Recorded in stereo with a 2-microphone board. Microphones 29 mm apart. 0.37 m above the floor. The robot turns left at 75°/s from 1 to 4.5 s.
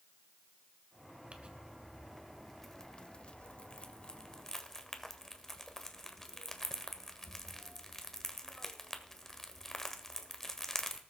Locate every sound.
1.3 s crumpling: 40° right (ahead or behind), 1.4 m; by 11.0 s 15° left (ahead or behind), 1.4 m